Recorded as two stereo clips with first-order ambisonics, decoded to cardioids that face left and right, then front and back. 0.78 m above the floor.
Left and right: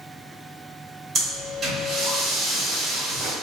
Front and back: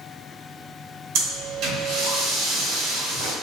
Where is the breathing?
150° right, 2 m.